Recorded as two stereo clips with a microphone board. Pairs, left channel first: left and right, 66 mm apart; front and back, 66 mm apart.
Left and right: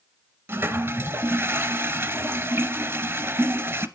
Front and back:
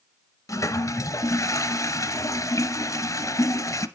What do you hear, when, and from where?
0.5 s a toilet flushing: 35° right, 0.6 m